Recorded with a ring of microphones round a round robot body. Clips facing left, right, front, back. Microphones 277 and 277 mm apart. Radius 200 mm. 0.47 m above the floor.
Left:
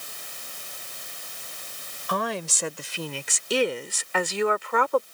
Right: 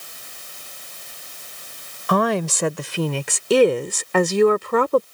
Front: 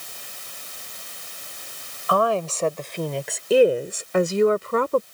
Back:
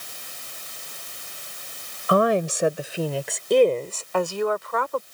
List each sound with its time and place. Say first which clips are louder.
2.1 s a woman speaking: right 10 dB, back 3 dB; 110° right; by 5.0 s 50° right